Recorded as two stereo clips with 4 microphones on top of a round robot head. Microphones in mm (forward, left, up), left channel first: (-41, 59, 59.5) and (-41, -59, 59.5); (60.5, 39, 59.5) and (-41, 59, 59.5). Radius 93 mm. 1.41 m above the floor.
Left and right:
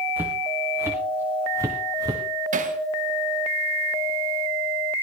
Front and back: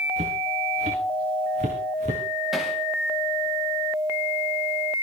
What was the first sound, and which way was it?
Footsteps, 165° right.